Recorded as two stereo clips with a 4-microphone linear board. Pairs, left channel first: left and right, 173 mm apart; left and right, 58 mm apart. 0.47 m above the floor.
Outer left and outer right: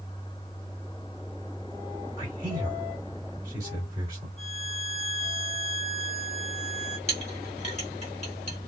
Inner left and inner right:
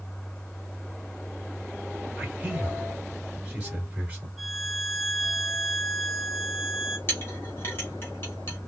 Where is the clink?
40° left (ahead or behind), 1.6 m.